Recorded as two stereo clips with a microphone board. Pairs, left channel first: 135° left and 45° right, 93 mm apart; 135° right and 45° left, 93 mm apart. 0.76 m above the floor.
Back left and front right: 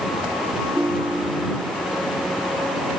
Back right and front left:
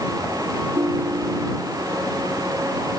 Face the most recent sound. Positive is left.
turn(degrees=30)